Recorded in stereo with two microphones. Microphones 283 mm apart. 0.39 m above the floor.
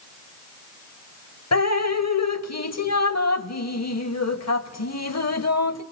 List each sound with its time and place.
1.5 s dripping: 65° left (ahead or behind), 0.7 m